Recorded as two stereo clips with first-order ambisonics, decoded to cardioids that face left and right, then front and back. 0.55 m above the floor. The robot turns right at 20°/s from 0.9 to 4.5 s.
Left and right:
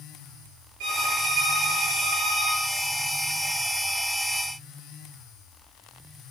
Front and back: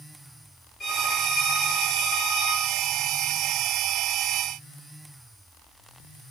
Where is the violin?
70° right, 10 m; by 2.6 s 35° right, 10 m.